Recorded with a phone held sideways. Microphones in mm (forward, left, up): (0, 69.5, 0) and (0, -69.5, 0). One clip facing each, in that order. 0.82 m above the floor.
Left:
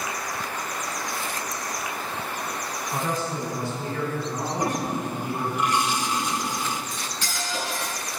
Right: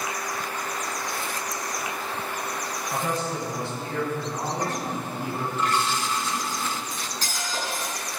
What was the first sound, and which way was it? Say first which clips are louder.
A man speaking: even; 75° right (ahead or behind).